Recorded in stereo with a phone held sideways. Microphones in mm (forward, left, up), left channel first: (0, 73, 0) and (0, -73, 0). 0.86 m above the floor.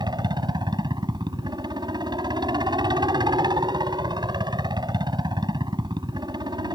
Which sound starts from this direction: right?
A helicopter, at 0.0 s.